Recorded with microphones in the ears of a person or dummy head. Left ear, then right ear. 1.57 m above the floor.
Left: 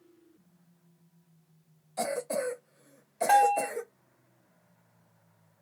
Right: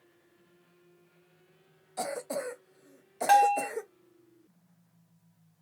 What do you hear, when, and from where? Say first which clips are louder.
2.0 s a cough: left 3 dB; 5° right (ahead or behind), 0.6 m
3.3 s a bell: right 1 dB; 35° right (ahead or behind), 2 m